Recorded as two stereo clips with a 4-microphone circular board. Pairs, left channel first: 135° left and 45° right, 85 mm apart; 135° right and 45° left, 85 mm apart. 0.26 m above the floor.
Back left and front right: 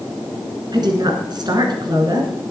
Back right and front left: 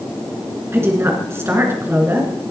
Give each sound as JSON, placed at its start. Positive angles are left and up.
{"t": 0.7, "sound": "a woman speaking", "azimuth_deg": -15, "distance_m": 2.5}